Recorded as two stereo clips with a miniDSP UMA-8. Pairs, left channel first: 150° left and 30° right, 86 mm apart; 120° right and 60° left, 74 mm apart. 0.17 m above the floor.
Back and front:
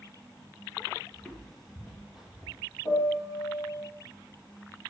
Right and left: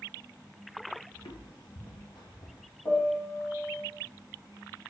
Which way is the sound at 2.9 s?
175° right.